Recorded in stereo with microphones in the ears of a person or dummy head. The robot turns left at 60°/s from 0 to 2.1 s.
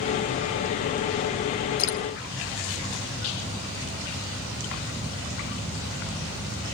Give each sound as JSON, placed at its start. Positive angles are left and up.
{"t": 1.8, "sound": "dripping", "side_deg": 90, "distance_m": 3.5}